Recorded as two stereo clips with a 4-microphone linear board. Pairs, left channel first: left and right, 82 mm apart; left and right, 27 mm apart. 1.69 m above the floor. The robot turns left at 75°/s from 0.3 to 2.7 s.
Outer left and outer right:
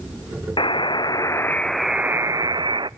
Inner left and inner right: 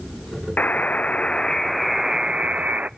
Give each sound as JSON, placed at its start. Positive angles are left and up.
{"t": 0.6, "sound": "a buzzer", "azimuth_deg": 95, "distance_m": 0.5}